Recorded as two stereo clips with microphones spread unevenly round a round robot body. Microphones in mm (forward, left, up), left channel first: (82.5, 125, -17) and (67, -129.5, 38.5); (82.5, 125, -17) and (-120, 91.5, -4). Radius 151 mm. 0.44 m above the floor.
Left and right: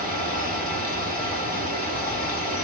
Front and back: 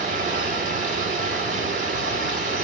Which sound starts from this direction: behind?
Running water, at 0.0 s.